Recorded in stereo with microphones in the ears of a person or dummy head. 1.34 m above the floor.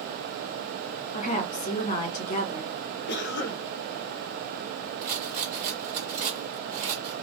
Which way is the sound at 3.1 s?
60° left (ahead or behind).